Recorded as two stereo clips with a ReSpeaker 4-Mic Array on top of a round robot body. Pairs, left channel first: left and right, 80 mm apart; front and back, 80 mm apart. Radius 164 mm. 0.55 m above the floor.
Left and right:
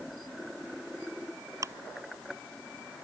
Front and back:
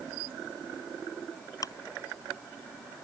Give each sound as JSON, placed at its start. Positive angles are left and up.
{"t": 1.6, "sound": "ticking", "azimuth_deg": -45}